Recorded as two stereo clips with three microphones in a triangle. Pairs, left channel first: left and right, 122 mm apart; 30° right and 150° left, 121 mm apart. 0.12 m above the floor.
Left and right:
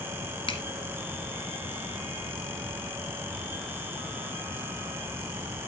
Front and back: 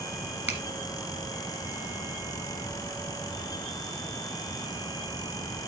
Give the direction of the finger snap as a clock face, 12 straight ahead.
9 o'clock.